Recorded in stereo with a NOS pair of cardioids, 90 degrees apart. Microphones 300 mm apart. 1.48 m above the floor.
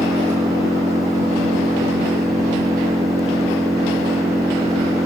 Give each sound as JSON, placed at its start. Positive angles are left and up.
{"t": 0.0, "sound": "an engine running", "azimuth_deg": -10}